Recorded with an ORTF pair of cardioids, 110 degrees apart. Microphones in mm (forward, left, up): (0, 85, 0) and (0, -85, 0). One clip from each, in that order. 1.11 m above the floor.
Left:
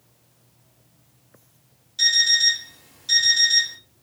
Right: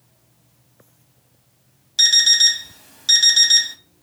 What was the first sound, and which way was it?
An alarm clock, 55° right.